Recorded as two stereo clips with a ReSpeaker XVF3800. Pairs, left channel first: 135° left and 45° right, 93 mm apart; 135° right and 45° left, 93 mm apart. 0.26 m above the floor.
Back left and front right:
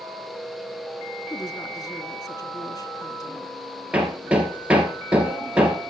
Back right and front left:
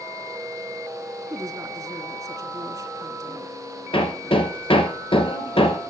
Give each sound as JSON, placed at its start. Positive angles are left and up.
{"t": 1.3, "sound": "a woman speaking", "azimuth_deg": 95, "distance_m": 2.0}
{"t": 3.9, "sound": "hammering", "azimuth_deg": -120, "distance_m": 2.5}